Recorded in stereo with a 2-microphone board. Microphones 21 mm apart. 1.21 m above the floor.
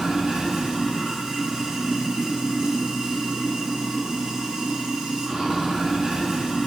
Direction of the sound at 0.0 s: 50° right (ahead or behind).